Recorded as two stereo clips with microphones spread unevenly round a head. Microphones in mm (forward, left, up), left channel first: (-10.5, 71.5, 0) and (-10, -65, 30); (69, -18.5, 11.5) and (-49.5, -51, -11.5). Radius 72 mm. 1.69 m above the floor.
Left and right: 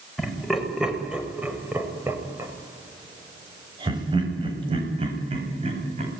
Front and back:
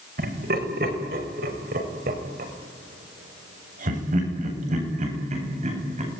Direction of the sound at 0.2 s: Straight behind.